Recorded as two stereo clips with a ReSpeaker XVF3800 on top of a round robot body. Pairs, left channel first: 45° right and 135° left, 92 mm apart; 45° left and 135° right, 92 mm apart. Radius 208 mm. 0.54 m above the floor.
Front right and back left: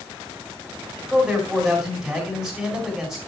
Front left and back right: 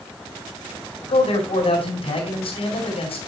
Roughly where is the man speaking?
Ahead left.